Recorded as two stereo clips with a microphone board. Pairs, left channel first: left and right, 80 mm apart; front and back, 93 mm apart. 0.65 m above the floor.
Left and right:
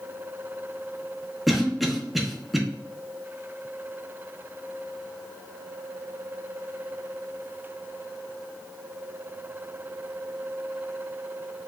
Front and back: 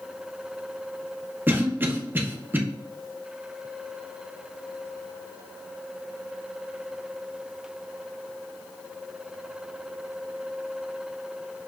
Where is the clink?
No clink in this recording.